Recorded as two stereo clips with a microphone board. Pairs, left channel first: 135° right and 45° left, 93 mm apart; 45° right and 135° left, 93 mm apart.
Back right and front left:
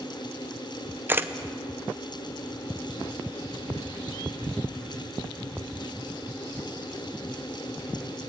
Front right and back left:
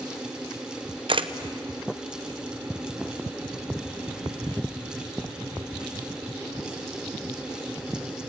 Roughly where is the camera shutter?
Left.